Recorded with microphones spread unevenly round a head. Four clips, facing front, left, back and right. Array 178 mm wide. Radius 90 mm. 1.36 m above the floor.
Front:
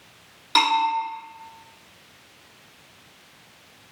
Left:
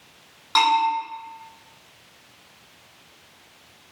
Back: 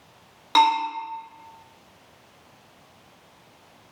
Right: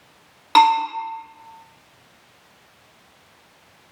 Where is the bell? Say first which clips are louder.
Right 5 dB, back 2 dB; 105° right, 1.7 m.